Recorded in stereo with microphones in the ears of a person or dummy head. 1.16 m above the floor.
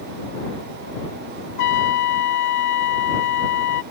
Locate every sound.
1.6 s a trumpet: 55° left (ahead or behind)